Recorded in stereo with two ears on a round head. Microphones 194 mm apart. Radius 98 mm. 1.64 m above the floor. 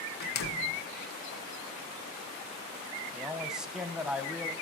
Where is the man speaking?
5° right (ahead or behind), 1.1 m.